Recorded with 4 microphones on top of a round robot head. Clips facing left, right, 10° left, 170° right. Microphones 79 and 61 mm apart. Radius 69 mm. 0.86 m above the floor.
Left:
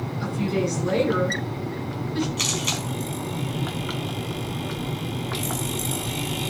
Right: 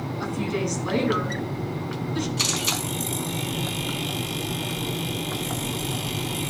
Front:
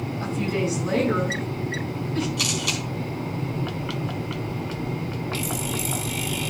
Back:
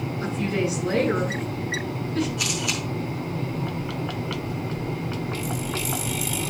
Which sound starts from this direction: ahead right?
A woman speaking, at 0.2 s.